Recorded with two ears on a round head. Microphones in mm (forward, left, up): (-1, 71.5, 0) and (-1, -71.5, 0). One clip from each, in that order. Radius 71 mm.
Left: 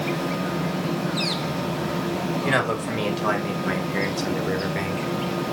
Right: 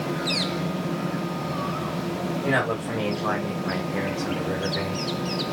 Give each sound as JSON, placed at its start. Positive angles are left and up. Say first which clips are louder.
{"t": 2.5, "sound": "a man speaking", "louder": "left 1 dB", "side_deg": 65, "distance_m": 4.0}